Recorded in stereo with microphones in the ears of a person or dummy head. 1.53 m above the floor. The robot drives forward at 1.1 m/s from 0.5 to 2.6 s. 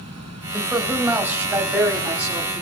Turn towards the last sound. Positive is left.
turn(degrees=-5)  # may be behind; listen again after turning